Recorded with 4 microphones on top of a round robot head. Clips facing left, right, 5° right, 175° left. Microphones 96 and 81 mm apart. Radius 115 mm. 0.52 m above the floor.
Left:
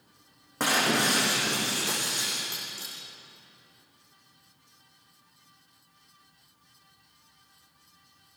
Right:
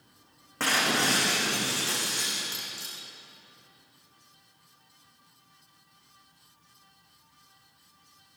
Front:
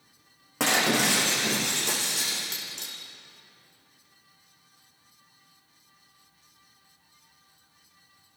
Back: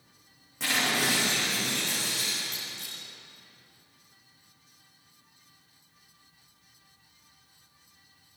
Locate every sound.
0.6 s breaking glass: 15° left, 5.5 m